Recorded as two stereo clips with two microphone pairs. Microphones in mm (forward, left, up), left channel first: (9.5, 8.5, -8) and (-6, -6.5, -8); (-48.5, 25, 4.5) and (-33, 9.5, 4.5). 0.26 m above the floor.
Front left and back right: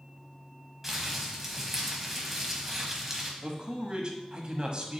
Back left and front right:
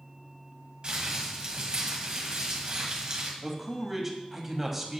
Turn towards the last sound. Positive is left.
turn(degrees=-125)